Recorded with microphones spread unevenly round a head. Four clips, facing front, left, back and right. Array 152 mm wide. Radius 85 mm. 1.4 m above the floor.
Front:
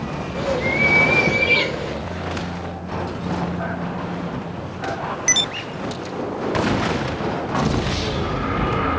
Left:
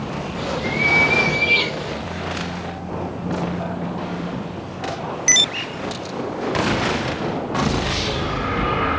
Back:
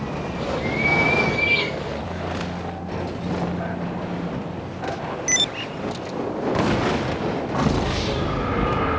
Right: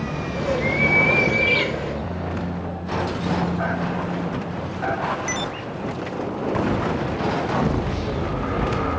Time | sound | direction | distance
0.3 | a bird | 30° right | 6.5 m